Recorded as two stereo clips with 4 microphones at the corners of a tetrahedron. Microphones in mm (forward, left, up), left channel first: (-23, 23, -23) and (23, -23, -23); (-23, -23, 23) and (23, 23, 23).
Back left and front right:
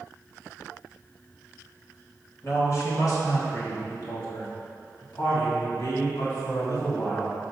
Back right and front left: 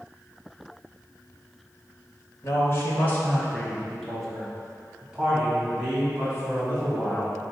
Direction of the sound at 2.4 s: Straight behind.